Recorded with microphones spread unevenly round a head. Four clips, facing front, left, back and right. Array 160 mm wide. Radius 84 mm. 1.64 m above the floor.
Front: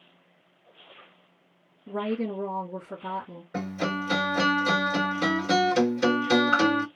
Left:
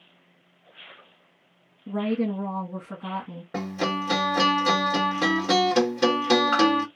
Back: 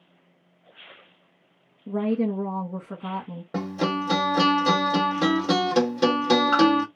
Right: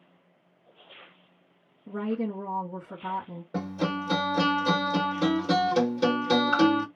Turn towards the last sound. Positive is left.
turn(degrees=180)